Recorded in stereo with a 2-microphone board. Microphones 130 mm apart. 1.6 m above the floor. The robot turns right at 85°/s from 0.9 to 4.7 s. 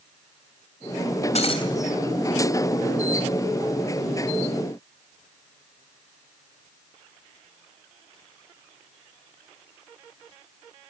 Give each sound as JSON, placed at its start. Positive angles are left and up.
{"t": 1.4, "sound": "breaking glass", "azimuth_deg": 115, "distance_m": 3.0}